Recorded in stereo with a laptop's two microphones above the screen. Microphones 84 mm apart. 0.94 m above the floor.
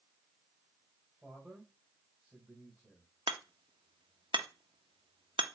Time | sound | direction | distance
1.2 | a man speaking | 10° right (ahead or behind) | 4 m
3.3 | hammering | 80° right | 0.8 m